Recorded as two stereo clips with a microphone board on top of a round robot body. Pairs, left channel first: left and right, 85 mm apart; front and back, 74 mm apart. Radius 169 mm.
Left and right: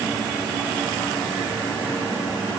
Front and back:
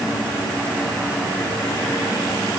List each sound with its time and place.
Only background noise.